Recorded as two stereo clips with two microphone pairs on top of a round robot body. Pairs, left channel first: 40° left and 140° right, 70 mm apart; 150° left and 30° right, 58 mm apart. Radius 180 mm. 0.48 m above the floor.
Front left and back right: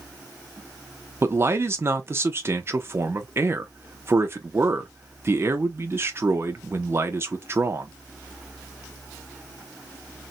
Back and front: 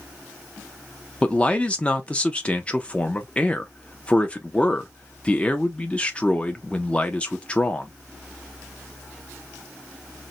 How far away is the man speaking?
About 0.8 m.